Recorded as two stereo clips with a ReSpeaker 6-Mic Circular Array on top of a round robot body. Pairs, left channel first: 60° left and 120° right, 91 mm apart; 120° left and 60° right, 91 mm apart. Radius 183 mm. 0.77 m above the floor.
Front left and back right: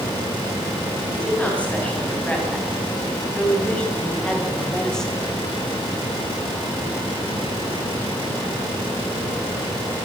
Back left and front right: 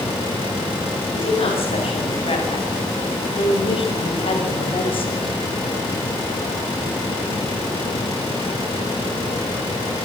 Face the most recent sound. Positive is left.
turn(degrees=145)